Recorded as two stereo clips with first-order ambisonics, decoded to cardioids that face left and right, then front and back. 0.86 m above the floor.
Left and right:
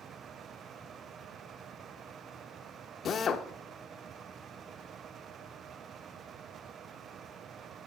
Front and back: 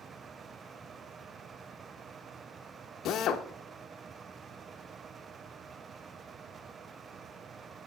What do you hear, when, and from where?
3.0 s a drill: 35° left, 0.6 m